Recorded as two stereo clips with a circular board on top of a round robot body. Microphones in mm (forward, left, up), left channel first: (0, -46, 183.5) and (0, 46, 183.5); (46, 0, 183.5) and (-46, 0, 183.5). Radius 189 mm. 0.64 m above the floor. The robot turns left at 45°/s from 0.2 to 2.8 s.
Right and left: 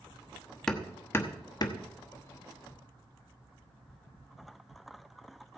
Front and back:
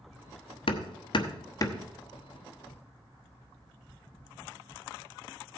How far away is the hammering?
About 1.1 m.